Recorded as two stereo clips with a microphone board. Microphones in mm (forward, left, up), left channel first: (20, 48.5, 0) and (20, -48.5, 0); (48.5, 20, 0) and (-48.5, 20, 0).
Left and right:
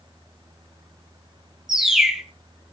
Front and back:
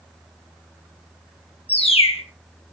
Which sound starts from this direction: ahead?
A bird, at 1.7 s.